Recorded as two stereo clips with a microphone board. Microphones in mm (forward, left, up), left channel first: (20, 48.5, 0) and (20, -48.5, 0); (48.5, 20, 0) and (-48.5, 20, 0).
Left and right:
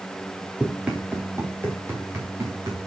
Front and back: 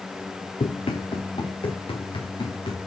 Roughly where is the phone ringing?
I don't hear a phone ringing.